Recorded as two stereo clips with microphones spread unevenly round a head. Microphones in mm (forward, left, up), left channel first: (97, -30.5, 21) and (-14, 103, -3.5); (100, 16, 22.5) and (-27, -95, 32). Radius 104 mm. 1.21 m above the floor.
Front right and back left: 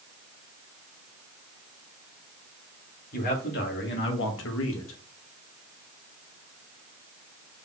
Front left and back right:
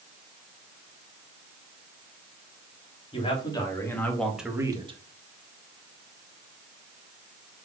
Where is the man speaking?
20° right, 3 m; by 5.0 s 85° right, 1.6 m.